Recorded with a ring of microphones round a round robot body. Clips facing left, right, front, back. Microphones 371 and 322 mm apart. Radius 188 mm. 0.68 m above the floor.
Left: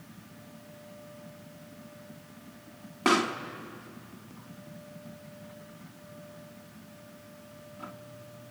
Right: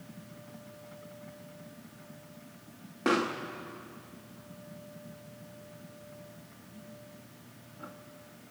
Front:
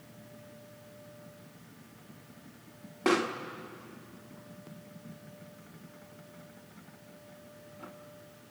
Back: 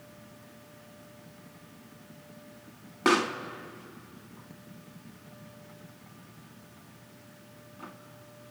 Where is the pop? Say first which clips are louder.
Left 1 dB, back 2 dB; 135° left, 0.9 m.